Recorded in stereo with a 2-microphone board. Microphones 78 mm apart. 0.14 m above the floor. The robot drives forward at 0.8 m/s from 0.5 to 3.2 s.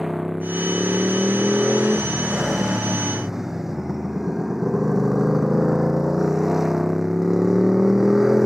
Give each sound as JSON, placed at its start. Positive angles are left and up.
{"t": 0.0, "sound": "a motorcycle", "side_deg": -5}